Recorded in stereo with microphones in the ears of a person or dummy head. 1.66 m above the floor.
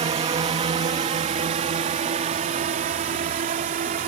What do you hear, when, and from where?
0.0 s a drone: 25° right (ahead or behind); by 4.1 s 40° right (ahead or behind)